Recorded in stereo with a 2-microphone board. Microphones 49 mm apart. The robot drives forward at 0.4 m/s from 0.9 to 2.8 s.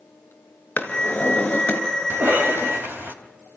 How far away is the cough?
About 3.5 m.